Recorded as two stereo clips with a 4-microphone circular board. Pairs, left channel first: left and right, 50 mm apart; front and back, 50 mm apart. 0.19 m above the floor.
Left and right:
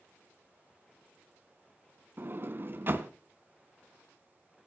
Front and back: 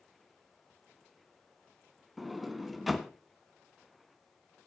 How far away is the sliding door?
About 0.9 m.